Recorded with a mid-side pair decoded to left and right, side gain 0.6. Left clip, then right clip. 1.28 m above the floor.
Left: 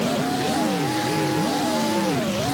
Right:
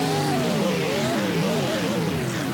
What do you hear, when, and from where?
Only background noise.